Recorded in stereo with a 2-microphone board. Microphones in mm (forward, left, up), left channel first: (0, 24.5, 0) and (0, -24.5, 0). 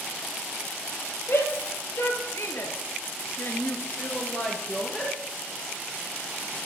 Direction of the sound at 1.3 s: 60° left (ahead or behind).